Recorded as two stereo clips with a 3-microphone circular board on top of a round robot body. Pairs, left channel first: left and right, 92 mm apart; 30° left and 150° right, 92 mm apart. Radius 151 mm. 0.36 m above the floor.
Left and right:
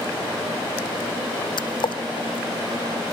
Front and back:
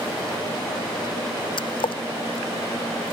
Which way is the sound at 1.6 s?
55° left.